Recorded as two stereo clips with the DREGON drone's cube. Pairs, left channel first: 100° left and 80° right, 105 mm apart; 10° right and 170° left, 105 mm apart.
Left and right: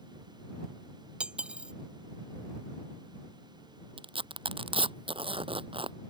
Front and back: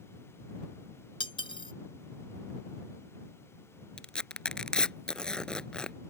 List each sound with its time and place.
1.2 s cutlery clinking: straight ahead
4.0 s tearing paper: 90° right